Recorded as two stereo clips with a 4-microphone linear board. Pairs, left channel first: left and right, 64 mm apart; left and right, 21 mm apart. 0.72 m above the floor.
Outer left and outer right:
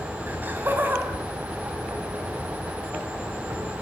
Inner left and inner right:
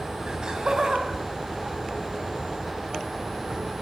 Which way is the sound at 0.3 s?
30° right (ahead or behind).